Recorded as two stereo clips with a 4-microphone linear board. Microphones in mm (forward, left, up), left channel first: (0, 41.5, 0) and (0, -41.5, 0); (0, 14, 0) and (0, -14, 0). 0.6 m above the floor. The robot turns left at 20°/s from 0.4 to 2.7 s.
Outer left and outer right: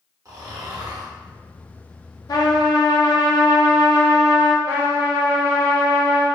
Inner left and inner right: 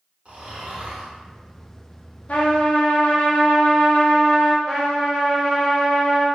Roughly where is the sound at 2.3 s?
Left.